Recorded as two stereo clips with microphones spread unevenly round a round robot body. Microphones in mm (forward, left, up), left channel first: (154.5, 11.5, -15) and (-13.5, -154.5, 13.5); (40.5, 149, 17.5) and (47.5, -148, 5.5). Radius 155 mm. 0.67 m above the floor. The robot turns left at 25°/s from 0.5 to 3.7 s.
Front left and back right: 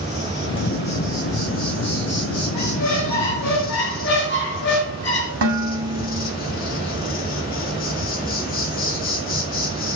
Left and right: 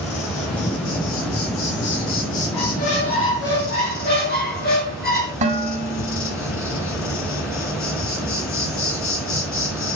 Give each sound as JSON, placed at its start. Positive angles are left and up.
{"t": 0.0, "sound": "an insect", "azimuth_deg": 125, "distance_m": 5.0}
{"t": 2.5, "sound": "a squeak", "azimuth_deg": 60, "distance_m": 5.5}
{"t": 5.4, "sound": "dishes clattering", "azimuth_deg": -155, "distance_m": 2.0}